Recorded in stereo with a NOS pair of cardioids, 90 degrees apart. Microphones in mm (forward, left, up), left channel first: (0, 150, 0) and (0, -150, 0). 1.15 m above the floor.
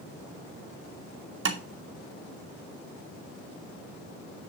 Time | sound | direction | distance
1.4 | tapping | 40° right | 2.0 m